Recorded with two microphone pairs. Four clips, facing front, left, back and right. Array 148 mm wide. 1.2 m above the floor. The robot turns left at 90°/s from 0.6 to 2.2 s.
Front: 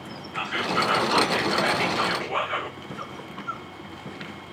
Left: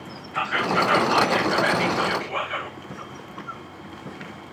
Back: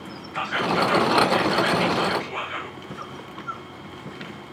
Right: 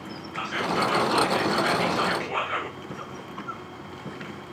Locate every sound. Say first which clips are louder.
0.3 s whispering: left 4 dB, back 3 dB; 90° left, 5 m; by 2.8 s 50° right, 5 m